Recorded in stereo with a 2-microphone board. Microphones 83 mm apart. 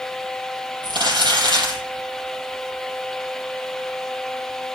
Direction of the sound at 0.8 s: 70° right (ahead or behind).